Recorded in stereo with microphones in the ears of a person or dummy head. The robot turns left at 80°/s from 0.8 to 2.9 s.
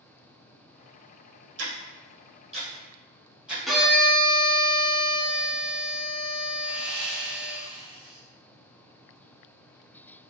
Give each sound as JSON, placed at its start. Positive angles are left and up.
{"t": 1.6, "sound": "ticking", "side_deg": -55, "distance_m": 1.1}
{"t": 3.7, "sound": "a violin", "side_deg": 0, "distance_m": 0.6}
{"t": 6.6, "sound": "sawing", "side_deg": -5, "distance_m": 0.7}